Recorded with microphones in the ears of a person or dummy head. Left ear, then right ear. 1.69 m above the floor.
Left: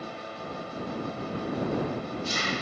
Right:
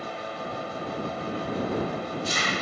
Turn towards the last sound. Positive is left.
turn(degrees=-20)  # may be behind; listen again after turning